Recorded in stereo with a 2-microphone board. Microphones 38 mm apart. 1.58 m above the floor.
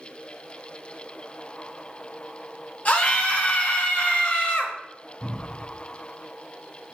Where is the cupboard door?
60° left (ahead or behind), 3 m.